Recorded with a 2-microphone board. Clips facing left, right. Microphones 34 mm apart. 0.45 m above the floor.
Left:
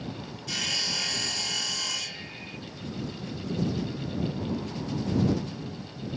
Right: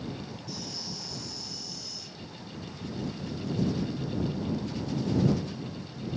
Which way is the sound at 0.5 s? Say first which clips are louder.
Left 15 dB; 80° left.